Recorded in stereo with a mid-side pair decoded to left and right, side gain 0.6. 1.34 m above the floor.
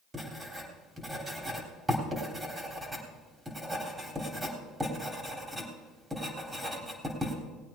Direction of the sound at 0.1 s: 15° right.